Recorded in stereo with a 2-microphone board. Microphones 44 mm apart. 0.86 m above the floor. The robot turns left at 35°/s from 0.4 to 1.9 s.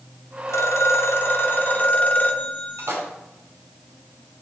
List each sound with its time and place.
0.5 s a phone ringing: 85° left, 1.1 m; by 3.0 s 40° left, 1.1 m
2.8 s a splash: 85° right, 3 m